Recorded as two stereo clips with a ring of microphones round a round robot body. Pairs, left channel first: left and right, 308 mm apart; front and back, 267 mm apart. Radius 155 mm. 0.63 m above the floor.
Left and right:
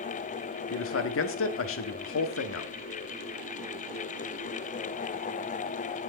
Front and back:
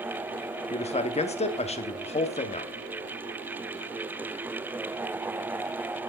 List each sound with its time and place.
0.7 s a man speaking: 60° left, 1.5 m